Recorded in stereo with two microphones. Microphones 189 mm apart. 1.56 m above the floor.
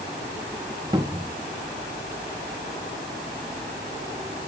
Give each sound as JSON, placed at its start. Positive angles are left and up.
{"t": 0.9, "sound": "a cupboard door", "side_deg": -20, "distance_m": 1.3}